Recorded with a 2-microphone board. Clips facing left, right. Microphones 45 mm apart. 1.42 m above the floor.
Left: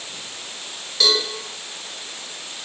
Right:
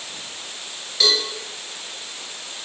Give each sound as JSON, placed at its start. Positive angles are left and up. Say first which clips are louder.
{"t": 1.0, "sound": "a cowbell", "louder": "left 1 dB", "side_deg": 0, "distance_m": 1.1}